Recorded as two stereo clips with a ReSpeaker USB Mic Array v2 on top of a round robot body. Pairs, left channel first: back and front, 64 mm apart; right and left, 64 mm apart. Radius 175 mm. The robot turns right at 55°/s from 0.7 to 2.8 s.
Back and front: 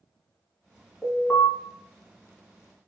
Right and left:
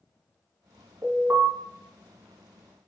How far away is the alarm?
About 1.6 m.